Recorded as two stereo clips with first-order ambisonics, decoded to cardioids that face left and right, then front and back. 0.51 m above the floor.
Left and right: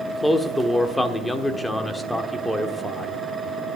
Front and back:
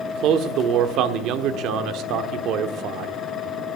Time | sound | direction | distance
0.1 | a man speaking | 175° left | 1.0 m